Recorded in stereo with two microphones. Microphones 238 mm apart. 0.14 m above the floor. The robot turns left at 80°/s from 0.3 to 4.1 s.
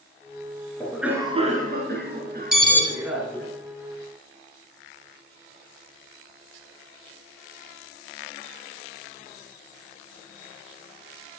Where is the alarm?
35° left (ahead or behind), 3 m; by 2.8 s 55° left (ahead or behind), 3 m.